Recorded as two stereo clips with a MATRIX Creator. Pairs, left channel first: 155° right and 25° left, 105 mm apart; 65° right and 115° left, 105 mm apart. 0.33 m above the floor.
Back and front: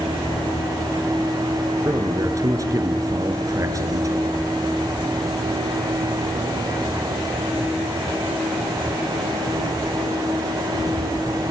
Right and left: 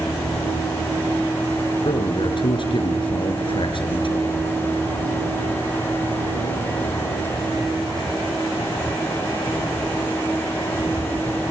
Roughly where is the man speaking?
Ahead right.